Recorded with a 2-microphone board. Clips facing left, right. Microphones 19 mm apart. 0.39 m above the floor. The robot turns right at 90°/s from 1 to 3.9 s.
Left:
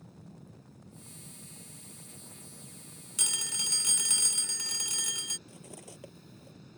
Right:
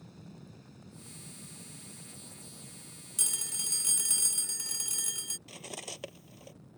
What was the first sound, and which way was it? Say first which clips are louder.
An aircraft: right 1 dB; 150° right.